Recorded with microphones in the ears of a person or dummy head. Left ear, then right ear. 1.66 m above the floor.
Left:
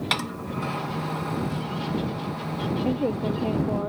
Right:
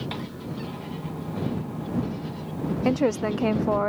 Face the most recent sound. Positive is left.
turn(degrees=-60)  # may be behind; listen again after turning